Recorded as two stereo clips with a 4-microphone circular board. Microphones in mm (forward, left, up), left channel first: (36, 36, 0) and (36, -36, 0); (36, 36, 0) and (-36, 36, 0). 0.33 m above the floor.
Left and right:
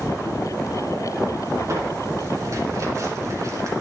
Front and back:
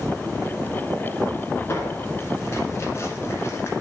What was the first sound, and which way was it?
Tearing paper, 50° right.